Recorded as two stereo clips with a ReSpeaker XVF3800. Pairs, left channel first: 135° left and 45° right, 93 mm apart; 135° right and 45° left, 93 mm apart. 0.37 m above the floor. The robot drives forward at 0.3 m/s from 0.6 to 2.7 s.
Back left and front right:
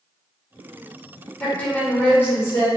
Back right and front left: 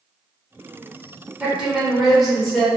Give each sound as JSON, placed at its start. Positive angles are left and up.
{"t": 1.4, "sound": "a woman speaking", "azimuth_deg": 85, "distance_m": 0.8}